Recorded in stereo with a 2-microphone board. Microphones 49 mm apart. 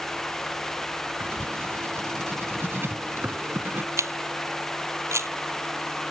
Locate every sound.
1.2 s writing: 55° right (ahead or behind)
4.0 s a camera shutter: 80° right